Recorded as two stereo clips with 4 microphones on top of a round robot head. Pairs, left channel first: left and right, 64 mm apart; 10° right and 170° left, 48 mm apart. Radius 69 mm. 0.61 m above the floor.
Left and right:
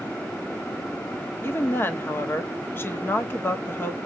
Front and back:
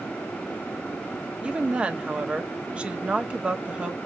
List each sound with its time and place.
1.4 s a woman speaking: 120° left, 0.8 m